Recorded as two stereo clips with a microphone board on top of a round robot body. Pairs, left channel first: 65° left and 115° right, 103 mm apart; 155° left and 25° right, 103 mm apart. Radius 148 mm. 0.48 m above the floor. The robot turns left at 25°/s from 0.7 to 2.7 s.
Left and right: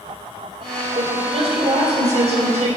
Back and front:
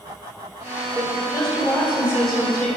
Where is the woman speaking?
80° right, 2.5 m; by 2.8 s 120° right, 2.5 m.